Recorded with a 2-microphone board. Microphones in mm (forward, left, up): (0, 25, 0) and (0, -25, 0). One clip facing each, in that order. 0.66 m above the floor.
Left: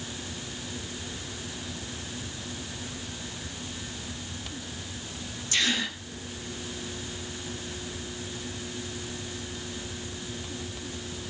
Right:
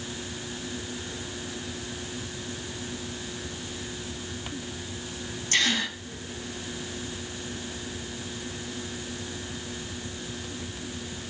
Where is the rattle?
No rattle in this recording.